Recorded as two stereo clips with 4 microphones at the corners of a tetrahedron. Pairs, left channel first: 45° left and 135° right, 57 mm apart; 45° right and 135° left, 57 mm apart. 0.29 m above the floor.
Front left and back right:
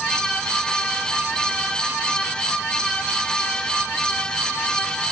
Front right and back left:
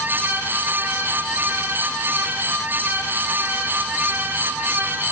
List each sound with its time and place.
Only background noise.